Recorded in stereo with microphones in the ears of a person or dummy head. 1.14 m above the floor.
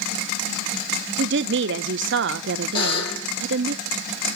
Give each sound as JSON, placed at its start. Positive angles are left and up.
{"t": 1.2, "sound": "a woman speaking", "side_deg": -60, "distance_m": 0.8}
{"t": 2.8, "sound": "a buzzer", "side_deg": 25, "distance_m": 7.5}